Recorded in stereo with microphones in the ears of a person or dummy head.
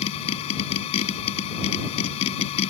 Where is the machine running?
40° left (ahead or behind).